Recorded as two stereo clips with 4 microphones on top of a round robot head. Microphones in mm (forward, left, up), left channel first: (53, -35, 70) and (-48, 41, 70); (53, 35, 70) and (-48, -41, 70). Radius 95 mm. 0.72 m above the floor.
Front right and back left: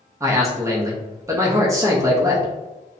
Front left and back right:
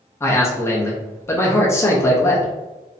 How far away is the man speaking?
About 0.6 m.